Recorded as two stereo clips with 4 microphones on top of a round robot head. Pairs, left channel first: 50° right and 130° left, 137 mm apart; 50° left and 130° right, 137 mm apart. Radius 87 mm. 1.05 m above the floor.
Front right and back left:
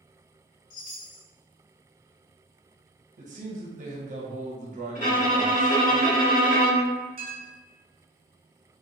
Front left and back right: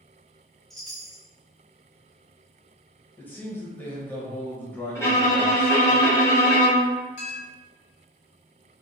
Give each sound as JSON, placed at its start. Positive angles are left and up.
{"t": 0.7, "sound": "a chime", "azimuth_deg": -40, "distance_m": 0.8}
{"t": 3.2, "sound": "a man speaking", "azimuth_deg": 125, "distance_m": 0.9}
{"t": 5.0, "sound": "a violin", "azimuth_deg": -20, "distance_m": 1.3}
{"t": 7.2, "sound": "a clink", "azimuth_deg": 80, "distance_m": 1.3}